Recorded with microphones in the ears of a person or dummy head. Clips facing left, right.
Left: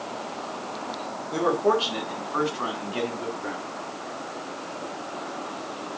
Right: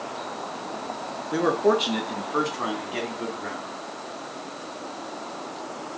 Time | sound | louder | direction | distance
1.3 | a man speaking | right 1 dB | 20° right (ahead or behind) | 2 m